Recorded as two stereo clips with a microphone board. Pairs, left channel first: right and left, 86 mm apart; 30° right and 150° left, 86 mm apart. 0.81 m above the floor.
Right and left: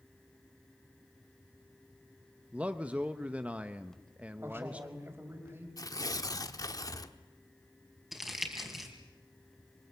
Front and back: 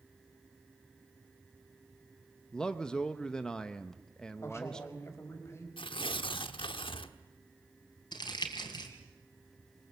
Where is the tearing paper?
45° right, 1.1 m.